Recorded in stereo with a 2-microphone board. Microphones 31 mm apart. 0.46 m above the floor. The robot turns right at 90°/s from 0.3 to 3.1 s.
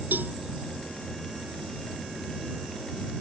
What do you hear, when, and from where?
0.1 s a cowbell: 85° right